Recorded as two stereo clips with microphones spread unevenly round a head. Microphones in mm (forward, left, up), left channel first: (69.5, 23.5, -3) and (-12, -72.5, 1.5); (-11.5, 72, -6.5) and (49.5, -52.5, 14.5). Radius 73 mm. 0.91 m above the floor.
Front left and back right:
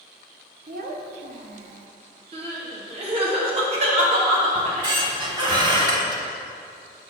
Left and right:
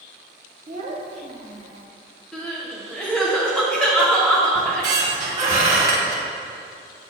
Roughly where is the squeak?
Right.